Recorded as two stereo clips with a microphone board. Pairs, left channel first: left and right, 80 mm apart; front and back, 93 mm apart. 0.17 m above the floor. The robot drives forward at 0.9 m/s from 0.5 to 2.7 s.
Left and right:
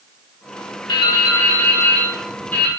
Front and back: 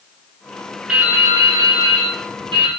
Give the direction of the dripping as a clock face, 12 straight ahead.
9 o'clock.